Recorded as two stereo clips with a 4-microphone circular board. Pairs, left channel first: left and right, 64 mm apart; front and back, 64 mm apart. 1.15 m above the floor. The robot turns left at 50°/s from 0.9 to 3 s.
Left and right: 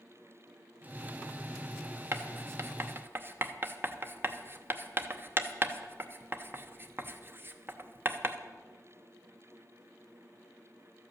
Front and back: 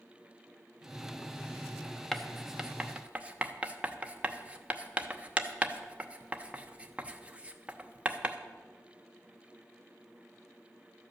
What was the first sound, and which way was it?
Writing, 80° right.